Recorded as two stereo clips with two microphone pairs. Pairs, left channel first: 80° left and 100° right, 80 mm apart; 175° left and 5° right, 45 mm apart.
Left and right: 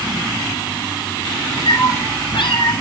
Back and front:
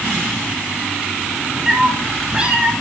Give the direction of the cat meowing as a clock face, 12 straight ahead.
10 o'clock.